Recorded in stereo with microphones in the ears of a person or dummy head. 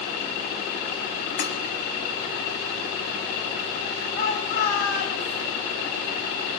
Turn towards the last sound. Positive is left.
turn(degrees=55)  # may be behind; listen again after turning